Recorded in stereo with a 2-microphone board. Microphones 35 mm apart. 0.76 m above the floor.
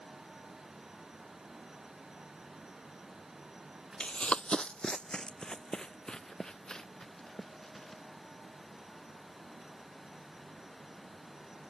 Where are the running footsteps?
30° left (ahead or behind); by 8.0 s 20° left (ahead or behind).